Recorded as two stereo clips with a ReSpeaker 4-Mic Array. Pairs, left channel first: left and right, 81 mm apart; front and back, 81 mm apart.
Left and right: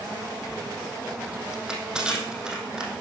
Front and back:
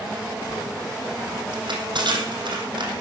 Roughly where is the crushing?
Behind.